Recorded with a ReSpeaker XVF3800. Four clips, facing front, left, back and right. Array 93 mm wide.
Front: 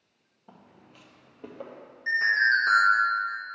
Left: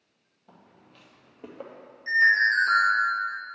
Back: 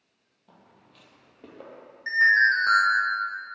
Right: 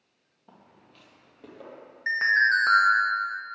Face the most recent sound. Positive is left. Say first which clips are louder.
# left 1 dB, back 3 dB
turn(degrees=-100)